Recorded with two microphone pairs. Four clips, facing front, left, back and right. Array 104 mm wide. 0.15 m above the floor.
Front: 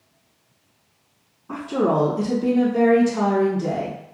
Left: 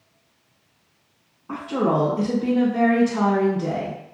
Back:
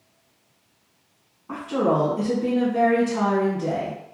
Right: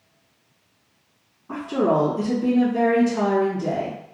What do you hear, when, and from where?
1.5 s a woman speaking: 120° left, 1.2 m